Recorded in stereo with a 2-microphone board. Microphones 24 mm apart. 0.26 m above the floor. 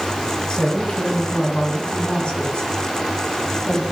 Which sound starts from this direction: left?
A woman speaking, at 0.5 s.